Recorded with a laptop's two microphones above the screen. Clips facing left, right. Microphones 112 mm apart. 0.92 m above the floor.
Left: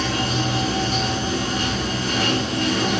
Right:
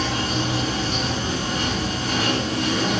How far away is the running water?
About 1.1 m.